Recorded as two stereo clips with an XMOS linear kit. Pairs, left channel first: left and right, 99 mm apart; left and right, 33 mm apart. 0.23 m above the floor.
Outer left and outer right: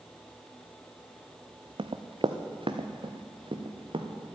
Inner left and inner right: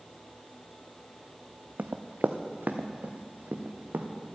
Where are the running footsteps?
65° right (ahead or behind), 0.8 m.